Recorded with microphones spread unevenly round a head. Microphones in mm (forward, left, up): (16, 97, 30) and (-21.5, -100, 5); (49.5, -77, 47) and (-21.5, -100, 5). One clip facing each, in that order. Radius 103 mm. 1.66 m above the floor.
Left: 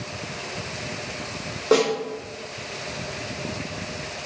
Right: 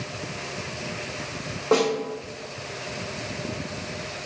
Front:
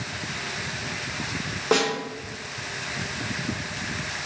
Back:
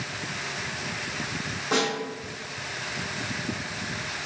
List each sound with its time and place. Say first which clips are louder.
1.7 s a snare drum: left 2 dB, front 3 dB; 10° left, 1.6 m